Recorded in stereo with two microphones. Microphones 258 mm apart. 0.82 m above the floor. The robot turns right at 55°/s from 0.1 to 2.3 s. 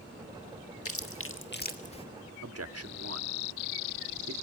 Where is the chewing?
65° left (ahead or behind), 1.5 m; by 2.0 s 20° left (ahead or behind), 1.5 m.